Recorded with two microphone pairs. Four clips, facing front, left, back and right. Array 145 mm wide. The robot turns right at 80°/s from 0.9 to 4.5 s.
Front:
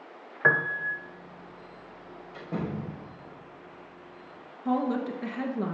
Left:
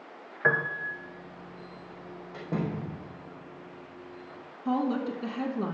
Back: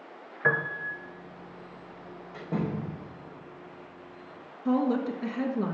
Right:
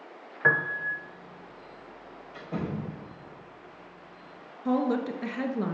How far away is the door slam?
About 4 m.